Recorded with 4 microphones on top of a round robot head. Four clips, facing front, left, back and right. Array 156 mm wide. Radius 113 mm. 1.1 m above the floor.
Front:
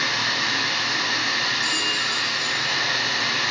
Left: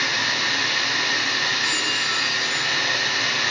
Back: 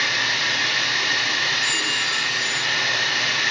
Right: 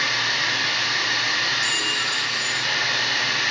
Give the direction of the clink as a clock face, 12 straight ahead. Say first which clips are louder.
Left 1 dB, back 1 dB; 2 o'clock.